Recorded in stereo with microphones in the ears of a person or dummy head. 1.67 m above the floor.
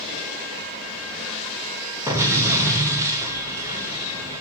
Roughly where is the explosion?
Centre.